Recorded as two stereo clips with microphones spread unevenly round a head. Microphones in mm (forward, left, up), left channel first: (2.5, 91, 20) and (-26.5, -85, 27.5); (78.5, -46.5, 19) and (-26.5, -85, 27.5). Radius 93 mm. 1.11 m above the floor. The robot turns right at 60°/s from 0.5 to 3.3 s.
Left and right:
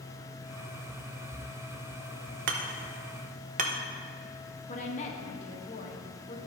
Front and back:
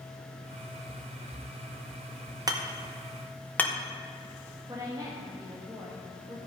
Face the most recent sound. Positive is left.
turn(degrees=130)